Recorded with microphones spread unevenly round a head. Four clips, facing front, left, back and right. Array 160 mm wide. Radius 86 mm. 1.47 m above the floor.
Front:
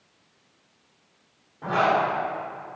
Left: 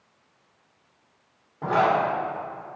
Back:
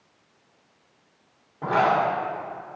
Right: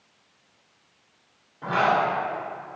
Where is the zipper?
135° left, 1.8 m.